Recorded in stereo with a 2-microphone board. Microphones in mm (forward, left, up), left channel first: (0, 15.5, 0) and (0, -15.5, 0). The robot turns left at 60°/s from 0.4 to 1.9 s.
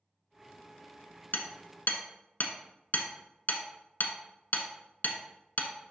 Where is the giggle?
No giggle in this recording.